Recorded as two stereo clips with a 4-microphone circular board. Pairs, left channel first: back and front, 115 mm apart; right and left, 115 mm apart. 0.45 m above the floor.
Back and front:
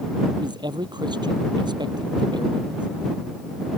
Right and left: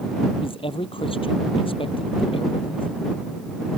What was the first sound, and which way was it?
A man speaking, 50° right.